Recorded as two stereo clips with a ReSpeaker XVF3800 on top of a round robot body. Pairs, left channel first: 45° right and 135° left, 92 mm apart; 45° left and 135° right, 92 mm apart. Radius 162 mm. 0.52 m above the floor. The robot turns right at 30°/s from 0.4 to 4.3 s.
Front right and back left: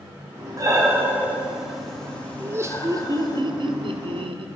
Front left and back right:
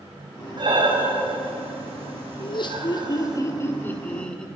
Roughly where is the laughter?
Left.